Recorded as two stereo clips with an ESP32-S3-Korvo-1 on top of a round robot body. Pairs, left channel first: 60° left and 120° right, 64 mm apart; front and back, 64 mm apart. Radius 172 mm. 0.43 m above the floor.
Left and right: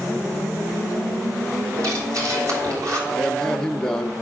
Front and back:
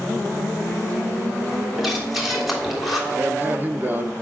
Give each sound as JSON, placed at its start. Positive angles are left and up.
{"t": 1.8, "sound": "breathing", "azimuth_deg": -90, "distance_m": 3.0}
{"t": 3.1, "sound": "a man speaking", "azimuth_deg": 135, "distance_m": 1.1}